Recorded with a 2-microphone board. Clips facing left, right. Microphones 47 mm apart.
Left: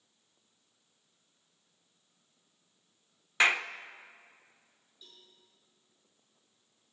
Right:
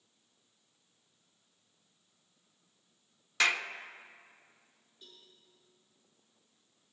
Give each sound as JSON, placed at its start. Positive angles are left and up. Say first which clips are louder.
{"t": 3.4, "sound": "a clap", "louder": "left 3 dB", "side_deg": 20, "distance_m": 0.5}
{"t": 5.0, "sound": "a cowbell", "louder": "even", "side_deg": -40, "distance_m": 7.0}